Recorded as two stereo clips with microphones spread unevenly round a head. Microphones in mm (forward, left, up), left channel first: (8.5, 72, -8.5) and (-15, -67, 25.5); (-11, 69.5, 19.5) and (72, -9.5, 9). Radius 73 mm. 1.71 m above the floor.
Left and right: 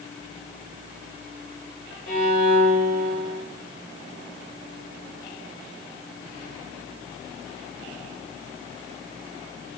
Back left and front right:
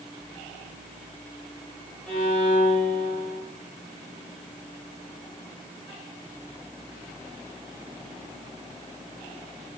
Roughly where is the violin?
Ahead left.